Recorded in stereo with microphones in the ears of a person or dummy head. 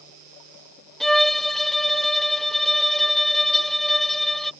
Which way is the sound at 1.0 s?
Centre (ahead or behind).